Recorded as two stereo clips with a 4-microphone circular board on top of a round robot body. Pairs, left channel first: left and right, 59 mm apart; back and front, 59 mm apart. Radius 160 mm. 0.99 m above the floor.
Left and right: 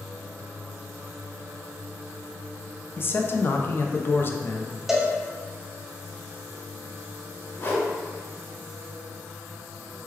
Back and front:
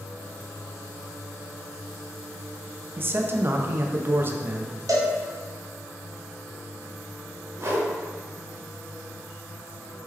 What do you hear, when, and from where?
3.0 s a man speaking: 45° left, 0.5 m
4.9 s a cowbell: 10° right, 0.6 m
7.6 s a whoosh: 40° left, 0.8 m